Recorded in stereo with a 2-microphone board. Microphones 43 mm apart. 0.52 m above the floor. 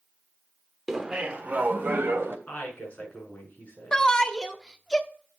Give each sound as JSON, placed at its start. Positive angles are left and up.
{"t": 0.9, "sound": "laughter", "side_deg": -10, "distance_m": 1.2}
{"t": 2.5, "sound": "a woman speaking", "side_deg": 35, "distance_m": 6.0}
{"t": 3.9, "sound": "a shout", "side_deg": 15, "distance_m": 0.9}